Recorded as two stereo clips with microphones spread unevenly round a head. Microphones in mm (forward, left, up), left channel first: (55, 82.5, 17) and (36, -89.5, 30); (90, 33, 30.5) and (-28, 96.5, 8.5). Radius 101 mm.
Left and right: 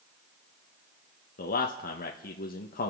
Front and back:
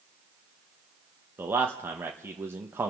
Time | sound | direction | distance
1.4 | a man speaking | 85° left | 1.2 m